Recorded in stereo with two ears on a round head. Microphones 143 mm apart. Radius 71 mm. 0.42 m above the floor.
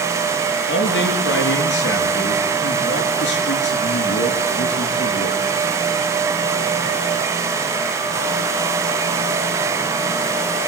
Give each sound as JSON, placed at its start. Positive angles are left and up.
{"t": 0.7, "sound": "a man speaking", "side_deg": 80, "distance_m": 6.0}